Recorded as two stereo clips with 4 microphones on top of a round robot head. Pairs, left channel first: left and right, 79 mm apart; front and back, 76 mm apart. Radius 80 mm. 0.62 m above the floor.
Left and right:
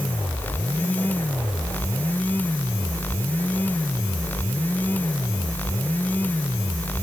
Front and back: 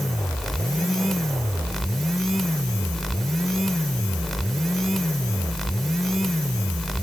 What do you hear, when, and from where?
Only background noise.